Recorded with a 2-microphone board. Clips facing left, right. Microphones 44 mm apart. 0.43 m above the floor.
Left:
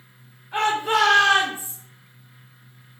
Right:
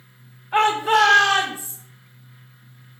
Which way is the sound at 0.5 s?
25° right (ahead or behind).